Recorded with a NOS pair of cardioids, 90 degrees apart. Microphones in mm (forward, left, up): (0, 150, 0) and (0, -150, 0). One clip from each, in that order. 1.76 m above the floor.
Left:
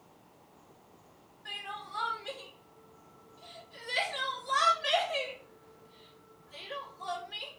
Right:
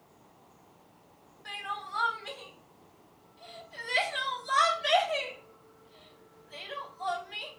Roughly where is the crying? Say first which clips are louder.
Right 3 dB; ahead right.